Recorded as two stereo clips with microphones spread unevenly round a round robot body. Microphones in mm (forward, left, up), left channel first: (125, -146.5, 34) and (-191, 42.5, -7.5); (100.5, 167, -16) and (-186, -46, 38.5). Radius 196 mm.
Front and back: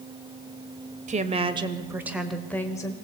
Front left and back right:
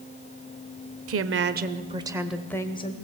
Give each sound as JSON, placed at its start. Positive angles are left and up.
{"t": 1.1, "sound": "a woman speaking", "azimuth_deg": -170, "distance_m": 1.3}